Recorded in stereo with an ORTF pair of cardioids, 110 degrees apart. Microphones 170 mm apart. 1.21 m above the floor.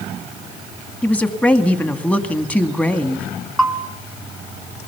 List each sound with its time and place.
1.0 s a woman speaking: 10° left, 2 m
3.6 s a bell: straight ahead, 1.8 m